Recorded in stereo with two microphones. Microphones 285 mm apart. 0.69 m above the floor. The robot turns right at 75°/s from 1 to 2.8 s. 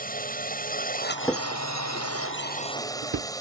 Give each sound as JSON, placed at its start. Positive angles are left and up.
{"t": 0.0, "sound": "a drone", "azimuth_deg": 30}
{"t": 1.2, "sound": "a drawer", "side_deg": 10}